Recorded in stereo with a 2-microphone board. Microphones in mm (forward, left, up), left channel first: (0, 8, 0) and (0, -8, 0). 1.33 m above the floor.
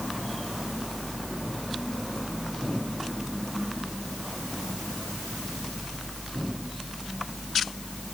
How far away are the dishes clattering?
No dishes clattering in this recording.